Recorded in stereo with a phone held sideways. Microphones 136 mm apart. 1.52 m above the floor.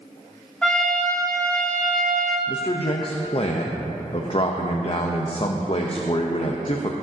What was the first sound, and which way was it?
A trumpet, 10° left (ahead or behind).